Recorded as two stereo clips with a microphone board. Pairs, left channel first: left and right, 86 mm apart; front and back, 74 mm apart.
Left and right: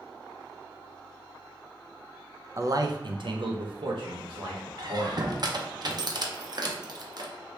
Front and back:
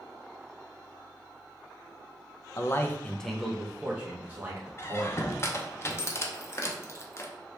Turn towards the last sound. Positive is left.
turn(degrees=-55)